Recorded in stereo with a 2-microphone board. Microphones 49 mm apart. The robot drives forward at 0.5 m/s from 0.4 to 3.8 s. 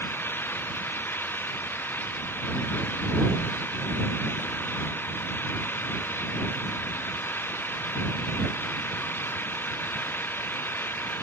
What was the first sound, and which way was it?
An engine running, 50° left (ahead or behind).